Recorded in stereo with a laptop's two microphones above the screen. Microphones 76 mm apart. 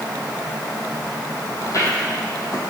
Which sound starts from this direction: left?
Footsteps, at 1.6 s.